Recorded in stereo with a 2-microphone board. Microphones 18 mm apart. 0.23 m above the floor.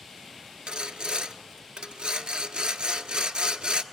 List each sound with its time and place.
0.7 s sawing: 70° right (ahead or behind), 0.7 m